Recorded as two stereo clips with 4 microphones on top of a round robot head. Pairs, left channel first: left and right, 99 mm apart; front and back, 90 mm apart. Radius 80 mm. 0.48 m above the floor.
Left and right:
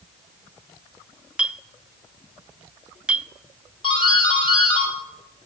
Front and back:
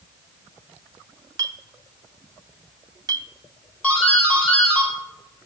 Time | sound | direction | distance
1.4 | a clink | 165° right | 0.5 m
3.8 | a doorbell | 75° left | 3 m